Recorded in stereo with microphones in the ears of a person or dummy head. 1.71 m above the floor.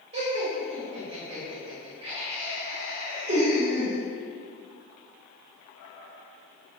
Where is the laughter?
25° right (ahead or behind), 0.9 m.